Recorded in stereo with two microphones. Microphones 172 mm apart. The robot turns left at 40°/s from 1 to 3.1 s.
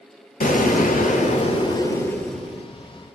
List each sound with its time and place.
0.4 s an explosion: 60° left, 0.6 m; by 2.7 s 10° right, 0.6 m